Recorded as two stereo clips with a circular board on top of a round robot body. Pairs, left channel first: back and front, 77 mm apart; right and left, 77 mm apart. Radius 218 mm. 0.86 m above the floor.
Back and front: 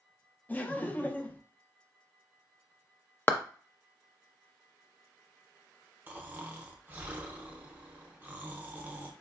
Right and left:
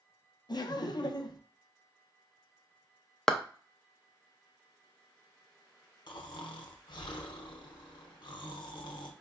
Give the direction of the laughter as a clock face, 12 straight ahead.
4 o'clock.